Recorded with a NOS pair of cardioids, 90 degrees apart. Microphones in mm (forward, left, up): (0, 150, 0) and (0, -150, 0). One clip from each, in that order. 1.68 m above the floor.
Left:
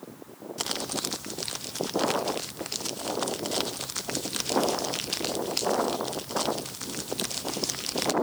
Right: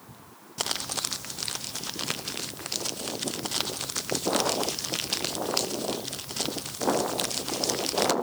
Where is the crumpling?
10° right, 0.8 m.